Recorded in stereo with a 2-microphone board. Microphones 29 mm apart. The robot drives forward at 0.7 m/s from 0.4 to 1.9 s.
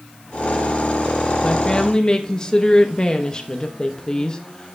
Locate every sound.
1.4 s a woman speaking: 25° left (ahead or behind), 1.2 m; by 4.8 s 30° left (ahead or behind), 1.1 m